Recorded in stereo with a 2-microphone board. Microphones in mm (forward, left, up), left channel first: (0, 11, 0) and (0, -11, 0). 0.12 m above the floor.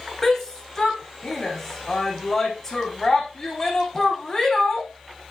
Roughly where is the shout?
Centre.